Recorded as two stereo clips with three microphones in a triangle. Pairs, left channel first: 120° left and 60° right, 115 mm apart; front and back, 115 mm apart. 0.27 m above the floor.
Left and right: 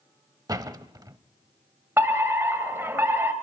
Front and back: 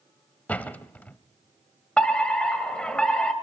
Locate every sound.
0.5 s a door slam: 65° right, 0.8 m
2.0 s a fire alarm: 70° right, 1.9 m